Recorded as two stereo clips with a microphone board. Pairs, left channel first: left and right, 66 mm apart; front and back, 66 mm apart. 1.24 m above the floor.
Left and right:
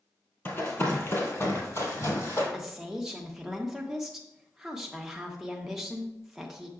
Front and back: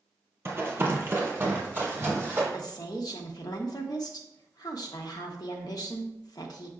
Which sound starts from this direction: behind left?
Running footsteps, at 0.5 s.